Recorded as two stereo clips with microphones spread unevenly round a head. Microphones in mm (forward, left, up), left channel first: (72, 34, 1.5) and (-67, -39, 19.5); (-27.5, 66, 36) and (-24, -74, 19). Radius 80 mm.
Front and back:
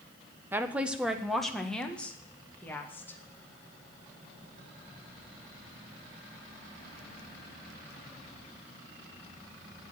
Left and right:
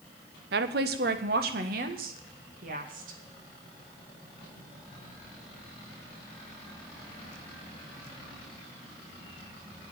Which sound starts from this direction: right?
A woman speaking, at 0.5 s.